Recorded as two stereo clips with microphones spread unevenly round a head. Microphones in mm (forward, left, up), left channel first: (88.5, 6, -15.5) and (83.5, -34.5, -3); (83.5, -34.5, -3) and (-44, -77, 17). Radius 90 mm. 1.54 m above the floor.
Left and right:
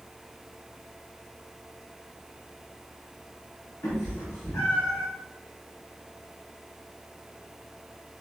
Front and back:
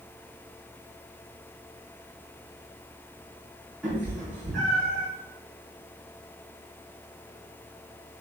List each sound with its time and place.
3.8 s a cat meowing: 110° left, 5.5 m; by 5.1 s 115° left, 6.5 m